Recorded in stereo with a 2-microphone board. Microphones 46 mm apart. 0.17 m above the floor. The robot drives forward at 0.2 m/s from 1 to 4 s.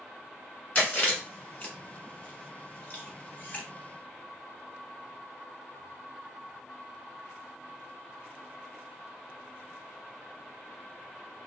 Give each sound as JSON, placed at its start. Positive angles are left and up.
{"t": 0.8, "sound": "chewing", "side_deg": 30, "distance_m": 1.2}